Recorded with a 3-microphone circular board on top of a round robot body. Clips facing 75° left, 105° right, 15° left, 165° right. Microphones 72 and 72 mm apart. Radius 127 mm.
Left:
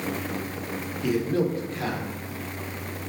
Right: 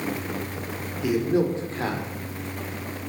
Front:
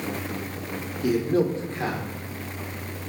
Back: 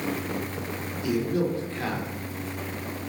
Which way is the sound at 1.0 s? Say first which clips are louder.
Right 2 dB, front 4 dB; 20° right.